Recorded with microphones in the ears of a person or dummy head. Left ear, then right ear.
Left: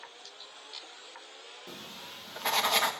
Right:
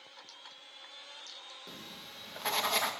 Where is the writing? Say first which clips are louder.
Left 3 dB; 10° left (ahead or behind), 1.7 m.